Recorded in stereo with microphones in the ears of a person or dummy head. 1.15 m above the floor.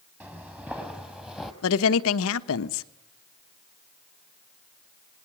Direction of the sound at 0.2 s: 5° right (ahead or behind).